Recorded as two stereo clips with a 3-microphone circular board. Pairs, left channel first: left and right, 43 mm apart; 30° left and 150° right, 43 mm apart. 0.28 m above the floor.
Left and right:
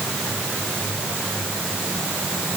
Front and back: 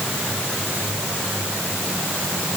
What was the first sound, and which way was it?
Only background noise.